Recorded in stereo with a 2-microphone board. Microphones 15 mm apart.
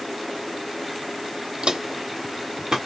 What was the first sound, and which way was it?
Footsteps, 65° right (ahead or behind).